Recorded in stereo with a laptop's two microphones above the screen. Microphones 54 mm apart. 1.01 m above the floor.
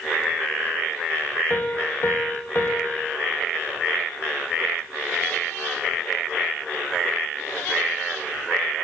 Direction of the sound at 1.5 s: 40° left (ahead or behind).